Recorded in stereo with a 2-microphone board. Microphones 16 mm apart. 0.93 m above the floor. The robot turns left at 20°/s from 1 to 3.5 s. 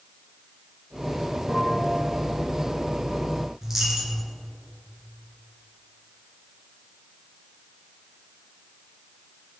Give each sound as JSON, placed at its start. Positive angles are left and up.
{"t": 1.5, "sound": "a bell", "side_deg": -55, "distance_m": 2.5}
{"t": 3.6, "sound": "a dropped coin", "side_deg": -30, "distance_m": 1.8}